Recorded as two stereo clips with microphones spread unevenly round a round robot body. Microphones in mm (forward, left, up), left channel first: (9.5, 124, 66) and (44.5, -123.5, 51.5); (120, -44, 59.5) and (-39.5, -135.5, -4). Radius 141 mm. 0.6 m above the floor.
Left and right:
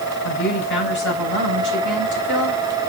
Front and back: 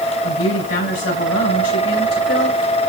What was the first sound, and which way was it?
A woman speaking, 55° left.